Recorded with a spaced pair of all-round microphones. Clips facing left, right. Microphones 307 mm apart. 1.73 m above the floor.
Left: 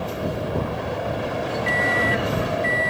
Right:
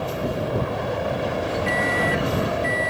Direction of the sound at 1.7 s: 20° left (ahead or behind).